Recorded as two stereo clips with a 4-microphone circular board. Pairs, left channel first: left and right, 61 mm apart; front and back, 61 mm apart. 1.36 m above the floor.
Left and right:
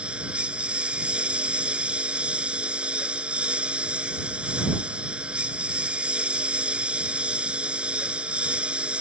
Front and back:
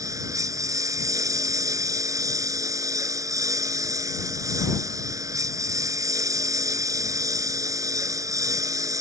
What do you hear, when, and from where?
0.0 s a lawn mower: 160° right